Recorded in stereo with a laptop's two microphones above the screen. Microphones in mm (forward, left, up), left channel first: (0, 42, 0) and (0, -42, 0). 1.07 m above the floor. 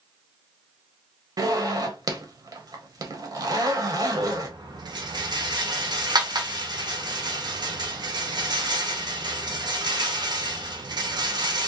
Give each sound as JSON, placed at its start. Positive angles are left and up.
{"t": 1.4, "sound": "a zipper", "side_deg": -50, "distance_m": 0.5}
{"t": 4.2, "sound": "a rattle", "side_deg": -55, "distance_m": 0.7}